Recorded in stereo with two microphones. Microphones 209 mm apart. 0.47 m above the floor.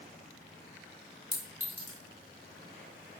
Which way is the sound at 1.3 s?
10° left (ahead or behind).